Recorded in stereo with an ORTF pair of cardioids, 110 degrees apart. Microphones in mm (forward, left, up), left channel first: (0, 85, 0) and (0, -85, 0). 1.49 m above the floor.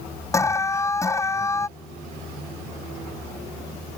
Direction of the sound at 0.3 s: 15° left.